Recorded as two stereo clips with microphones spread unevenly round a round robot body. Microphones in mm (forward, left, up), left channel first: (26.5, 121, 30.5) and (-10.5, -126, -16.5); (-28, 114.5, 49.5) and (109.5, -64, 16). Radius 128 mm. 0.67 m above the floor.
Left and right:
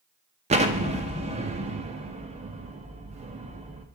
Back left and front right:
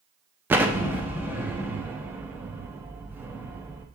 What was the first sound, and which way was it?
An explosion, 115° right.